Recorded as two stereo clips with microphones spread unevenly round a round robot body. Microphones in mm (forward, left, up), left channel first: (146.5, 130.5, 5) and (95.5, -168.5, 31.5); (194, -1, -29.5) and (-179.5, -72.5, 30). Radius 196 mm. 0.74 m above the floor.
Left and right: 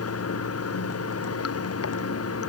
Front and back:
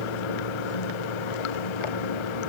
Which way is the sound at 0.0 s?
35° left.